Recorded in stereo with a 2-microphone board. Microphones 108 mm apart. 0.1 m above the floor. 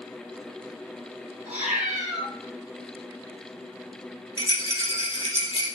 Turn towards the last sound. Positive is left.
turn(degrees=45)  # may be behind; listen again after turning